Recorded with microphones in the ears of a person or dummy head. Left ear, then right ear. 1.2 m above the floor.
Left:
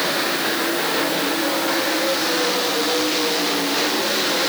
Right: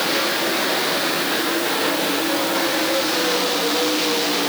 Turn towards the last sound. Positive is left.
No sound to turn to.